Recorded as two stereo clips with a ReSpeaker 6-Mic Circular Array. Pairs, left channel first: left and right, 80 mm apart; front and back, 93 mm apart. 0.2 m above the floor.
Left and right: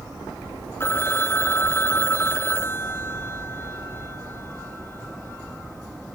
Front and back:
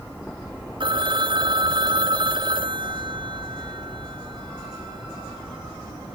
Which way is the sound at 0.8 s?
150° left.